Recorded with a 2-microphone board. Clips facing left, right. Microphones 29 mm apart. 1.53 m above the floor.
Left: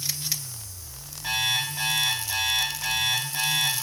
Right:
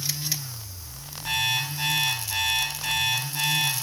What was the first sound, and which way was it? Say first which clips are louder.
An alarm clock: even; 65° left (ahead or behind).